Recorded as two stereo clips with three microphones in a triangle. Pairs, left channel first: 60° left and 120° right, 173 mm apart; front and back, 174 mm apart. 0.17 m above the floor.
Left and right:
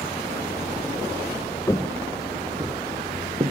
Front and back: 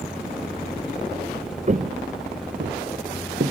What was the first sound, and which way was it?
Footsteps, 130° left.